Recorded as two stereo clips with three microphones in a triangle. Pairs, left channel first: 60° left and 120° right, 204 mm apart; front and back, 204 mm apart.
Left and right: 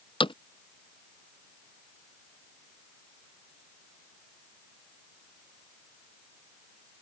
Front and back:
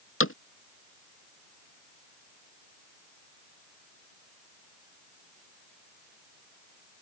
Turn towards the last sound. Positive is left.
turn(degrees=-5)